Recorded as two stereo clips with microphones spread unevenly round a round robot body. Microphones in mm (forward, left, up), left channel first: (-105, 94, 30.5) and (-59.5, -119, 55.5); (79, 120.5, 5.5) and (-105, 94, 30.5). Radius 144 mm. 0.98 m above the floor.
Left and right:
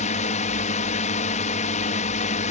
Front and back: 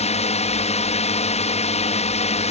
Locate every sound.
0.0 s a drone: 50° left